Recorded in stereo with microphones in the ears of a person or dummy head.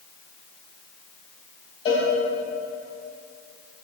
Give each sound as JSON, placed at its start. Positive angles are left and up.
{"t": 1.9, "sound": "a cowbell", "side_deg": 25, "distance_m": 1.8}